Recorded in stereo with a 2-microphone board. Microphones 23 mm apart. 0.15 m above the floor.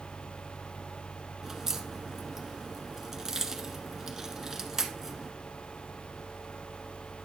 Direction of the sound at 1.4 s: 20° right (ahead or behind).